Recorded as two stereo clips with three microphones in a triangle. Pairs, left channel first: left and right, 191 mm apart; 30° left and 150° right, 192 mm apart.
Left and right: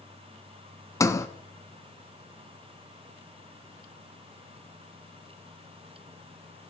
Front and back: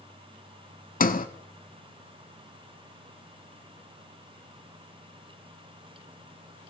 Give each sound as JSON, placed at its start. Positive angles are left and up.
{"t": 1.0, "sound": "a sliding door", "azimuth_deg": 25, "distance_m": 0.5}